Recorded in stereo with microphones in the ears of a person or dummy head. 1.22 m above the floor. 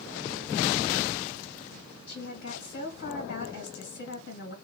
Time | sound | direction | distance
2.1 | a woman speaking | 70° left (ahead or behind) | 1.8 m